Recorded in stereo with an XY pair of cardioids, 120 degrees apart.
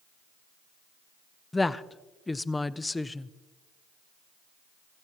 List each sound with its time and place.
1.5 s a woman speaking: 15° left, 0.6 m